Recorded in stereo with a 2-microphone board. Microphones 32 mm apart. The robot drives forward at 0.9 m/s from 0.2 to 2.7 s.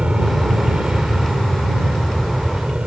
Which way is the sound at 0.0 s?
30° right (ahead or behind).